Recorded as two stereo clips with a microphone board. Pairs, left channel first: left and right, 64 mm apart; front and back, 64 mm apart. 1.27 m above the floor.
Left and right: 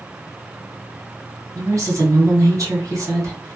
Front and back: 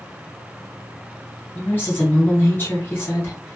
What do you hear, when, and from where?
1.6 s a woman speaking: 55° right, 1.4 m